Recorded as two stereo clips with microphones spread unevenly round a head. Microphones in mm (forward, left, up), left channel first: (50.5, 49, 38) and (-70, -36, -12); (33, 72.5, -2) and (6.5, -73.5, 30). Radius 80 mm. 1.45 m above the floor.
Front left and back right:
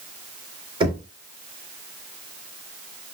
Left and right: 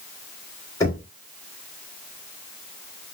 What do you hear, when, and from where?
0.8 s knocking: 155° left, 3 m